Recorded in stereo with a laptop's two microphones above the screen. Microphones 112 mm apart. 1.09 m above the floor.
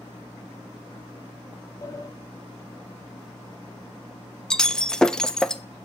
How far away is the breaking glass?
About 0.6 m.